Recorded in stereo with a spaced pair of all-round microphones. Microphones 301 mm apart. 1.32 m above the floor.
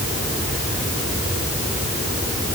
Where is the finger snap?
I don't hear a finger snap.